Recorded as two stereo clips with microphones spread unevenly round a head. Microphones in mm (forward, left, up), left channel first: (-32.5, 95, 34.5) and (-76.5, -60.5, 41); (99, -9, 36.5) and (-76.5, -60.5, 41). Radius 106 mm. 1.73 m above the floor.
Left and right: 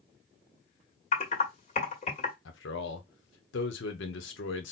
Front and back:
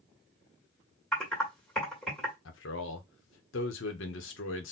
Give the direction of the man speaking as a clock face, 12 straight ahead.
10 o'clock.